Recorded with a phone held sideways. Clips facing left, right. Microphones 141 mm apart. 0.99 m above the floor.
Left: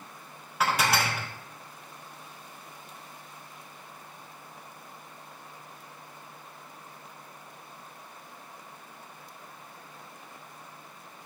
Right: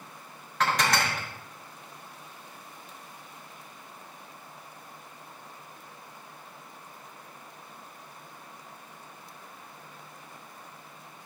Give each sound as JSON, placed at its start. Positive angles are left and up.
{"t": 0.6, "sound": "dishes clattering", "side_deg": 10, "distance_m": 0.5}